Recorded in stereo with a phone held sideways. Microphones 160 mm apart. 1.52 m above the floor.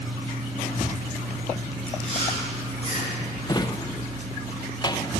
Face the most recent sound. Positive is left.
turn(degrees=25)  # may be behind; listen again after turning